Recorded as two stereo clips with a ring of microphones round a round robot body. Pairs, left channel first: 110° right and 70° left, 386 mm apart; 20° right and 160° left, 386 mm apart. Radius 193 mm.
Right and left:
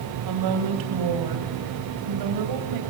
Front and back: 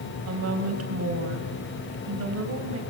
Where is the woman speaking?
105° left, 4.5 m.